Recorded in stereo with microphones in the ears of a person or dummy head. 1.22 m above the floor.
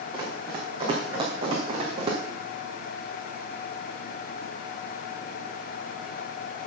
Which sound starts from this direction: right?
Running footsteps, at 0.1 s.